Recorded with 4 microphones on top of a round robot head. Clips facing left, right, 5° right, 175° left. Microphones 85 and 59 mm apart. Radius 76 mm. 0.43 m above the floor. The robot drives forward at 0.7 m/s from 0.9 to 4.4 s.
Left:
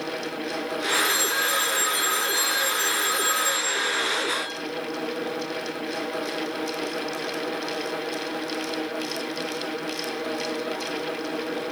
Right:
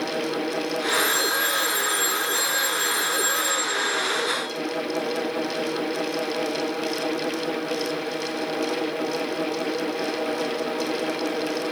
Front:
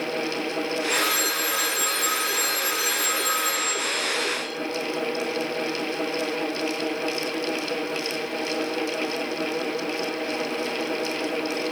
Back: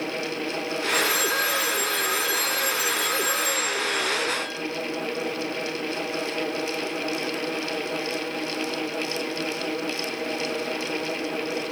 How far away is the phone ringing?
About 7 m.